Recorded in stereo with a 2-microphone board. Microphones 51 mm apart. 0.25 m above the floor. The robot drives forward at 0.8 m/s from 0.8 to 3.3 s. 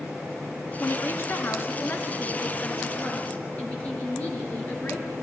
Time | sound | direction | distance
0.8 | a woman speaking | 55° left (ahead or behind) | 1.9 m